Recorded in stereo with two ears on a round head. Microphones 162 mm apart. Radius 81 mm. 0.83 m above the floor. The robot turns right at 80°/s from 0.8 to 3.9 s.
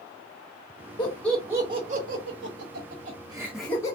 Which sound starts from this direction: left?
Laughter, at 1.0 s.